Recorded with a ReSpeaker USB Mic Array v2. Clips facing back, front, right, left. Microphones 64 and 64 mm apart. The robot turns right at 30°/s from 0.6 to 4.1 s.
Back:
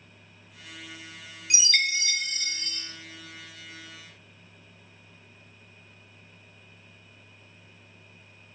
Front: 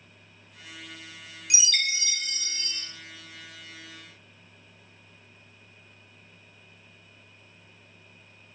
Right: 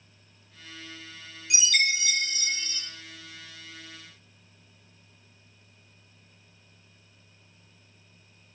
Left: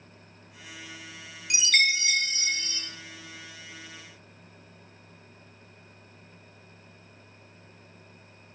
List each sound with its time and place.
1.5 s a chime: 120° left, 0.6 m; by 2.8 s 160° left, 0.6 m